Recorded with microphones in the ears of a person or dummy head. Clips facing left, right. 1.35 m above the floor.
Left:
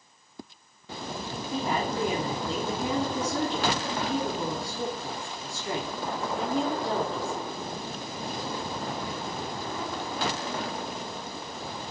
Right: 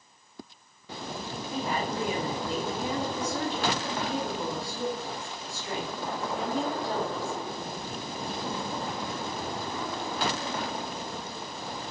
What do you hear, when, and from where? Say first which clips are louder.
1.5 s a woman speaking: left 2 dB; 55° left (ahead or behind), 0.7 m